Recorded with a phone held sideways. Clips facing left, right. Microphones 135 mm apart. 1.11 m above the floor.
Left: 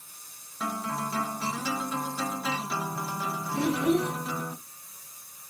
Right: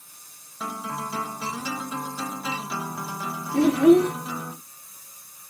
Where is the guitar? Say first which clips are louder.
Even; 5° right (ahead or behind), 0.7 m.